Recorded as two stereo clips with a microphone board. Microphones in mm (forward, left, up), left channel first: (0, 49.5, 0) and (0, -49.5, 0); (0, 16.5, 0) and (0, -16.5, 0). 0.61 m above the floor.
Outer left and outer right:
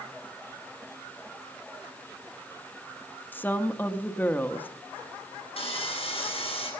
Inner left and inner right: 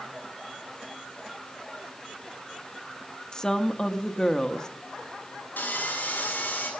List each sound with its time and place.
3.3 s a woman speaking: 20° left (ahead or behind), 0.8 m
5.6 s sawing: 75° left (ahead or behind), 6.5 m